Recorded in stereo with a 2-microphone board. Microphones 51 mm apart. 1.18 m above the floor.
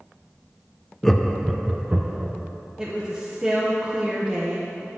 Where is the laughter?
10° left (ahead or behind), 0.6 m; by 2.3 s 30° right (ahead or behind), 0.9 m.